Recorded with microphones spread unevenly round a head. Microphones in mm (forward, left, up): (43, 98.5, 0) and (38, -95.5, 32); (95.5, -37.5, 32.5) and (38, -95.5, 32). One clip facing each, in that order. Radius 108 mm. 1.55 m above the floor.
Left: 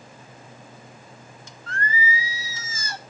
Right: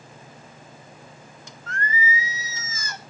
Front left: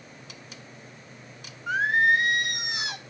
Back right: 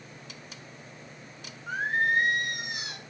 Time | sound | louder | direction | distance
1.7 | singing | even, front left 5 dB | 30° left | 0.7 m